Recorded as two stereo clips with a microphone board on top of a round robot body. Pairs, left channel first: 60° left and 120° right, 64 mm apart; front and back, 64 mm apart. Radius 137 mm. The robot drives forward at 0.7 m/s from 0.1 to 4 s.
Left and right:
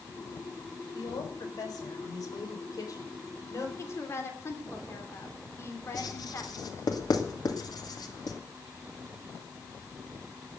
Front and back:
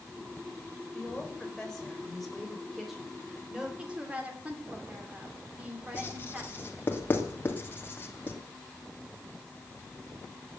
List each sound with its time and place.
0.9 s a woman speaking: 75° left, 5 m; by 3.7 s 100° left, 5 m
3.8 s a woman speaking: 105° left, 3 m; by 6.9 s 110° left, 3.5 m
5.9 s writing: 60° left, 3 m